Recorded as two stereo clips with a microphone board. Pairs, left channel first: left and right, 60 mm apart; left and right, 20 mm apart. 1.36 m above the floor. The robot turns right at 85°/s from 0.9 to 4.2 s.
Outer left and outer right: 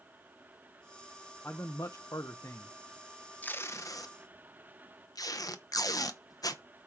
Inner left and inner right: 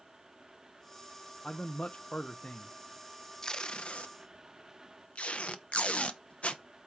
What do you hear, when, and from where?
1.4 s a man speaking: 40° left, 0.8 m; by 2.7 s 150° left, 0.8 m
3.4 s tape being pulled: 30° left (ahead or behind), 1.0 m; by 6.6 s 85° left, 1.0 m